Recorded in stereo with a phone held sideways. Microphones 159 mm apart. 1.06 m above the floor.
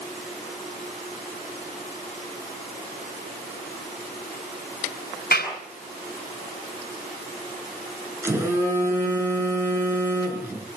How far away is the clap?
About 7.5 m.